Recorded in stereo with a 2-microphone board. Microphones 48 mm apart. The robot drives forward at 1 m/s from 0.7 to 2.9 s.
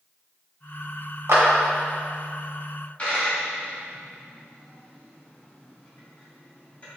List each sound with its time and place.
1.3 s a clap: 75° right (ahead or behind), 1.1 m; by 1.4 s 70° right (ahead or behind), 1.1 m
3.0 s a dropped coin: 30° left (ahead or behind), 1.8 m